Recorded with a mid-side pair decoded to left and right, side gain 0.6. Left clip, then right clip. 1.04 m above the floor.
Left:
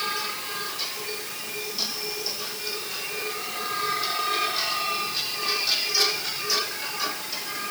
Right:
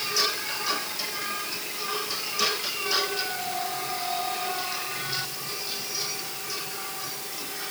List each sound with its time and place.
Only background noise.